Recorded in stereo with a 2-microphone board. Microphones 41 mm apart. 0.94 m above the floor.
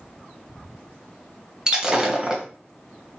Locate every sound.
1.7 s breaking glass: 20° right (ahead or behind), 1.1 m